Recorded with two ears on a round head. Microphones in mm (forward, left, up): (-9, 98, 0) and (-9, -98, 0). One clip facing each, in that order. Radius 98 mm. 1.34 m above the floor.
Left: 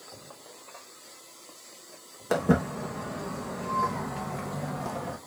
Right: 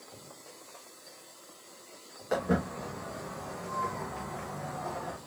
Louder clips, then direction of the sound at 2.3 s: Left 5 dB; 65° left (ahead or behind).